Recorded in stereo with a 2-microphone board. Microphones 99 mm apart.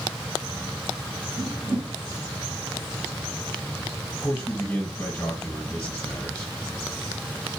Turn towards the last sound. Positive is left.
turn(degrees=20)  # may be behind; listen again after turning